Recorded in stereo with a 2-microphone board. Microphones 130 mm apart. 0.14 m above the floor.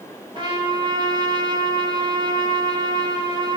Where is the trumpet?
40° right (ahead or behind), 3.5 m.